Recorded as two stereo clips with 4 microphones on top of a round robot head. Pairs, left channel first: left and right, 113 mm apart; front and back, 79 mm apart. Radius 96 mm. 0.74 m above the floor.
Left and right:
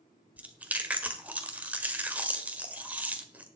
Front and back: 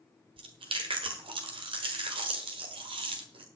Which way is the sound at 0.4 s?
165° right.